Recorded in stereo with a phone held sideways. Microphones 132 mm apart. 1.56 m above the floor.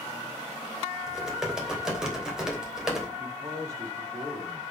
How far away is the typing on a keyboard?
About 3 m.